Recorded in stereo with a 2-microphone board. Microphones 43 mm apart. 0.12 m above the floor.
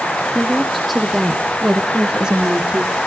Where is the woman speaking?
5° left (ahead or behind), 4 m; by 3.0 s 25° right (ahead or behind), 5 m.